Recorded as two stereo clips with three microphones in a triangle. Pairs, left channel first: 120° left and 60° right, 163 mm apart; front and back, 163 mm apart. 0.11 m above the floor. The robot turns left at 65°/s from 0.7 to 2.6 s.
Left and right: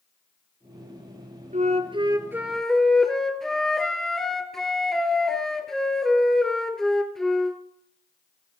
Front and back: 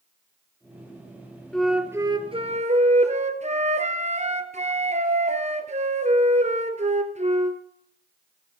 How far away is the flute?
About 1.2 m.